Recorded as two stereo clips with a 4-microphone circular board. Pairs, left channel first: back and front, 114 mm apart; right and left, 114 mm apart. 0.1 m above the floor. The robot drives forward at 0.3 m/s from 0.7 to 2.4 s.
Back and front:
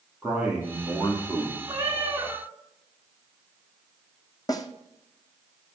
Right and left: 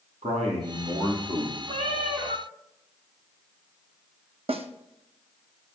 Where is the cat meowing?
65° left, 2.5 m; by 2.5 s 70° left, 2.5 m.